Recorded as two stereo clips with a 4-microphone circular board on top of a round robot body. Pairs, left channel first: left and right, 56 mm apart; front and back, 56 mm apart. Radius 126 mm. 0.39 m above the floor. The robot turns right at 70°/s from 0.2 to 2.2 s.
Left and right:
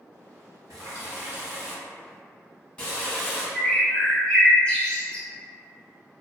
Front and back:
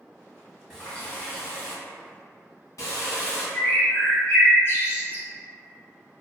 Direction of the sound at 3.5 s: 30° left.